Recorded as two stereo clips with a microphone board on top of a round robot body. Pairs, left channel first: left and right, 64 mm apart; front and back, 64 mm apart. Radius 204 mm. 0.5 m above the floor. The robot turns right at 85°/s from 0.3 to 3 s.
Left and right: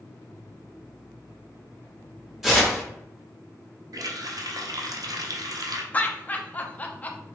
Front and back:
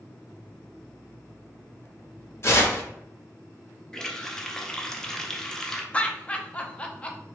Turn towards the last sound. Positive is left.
turn(degrees=50)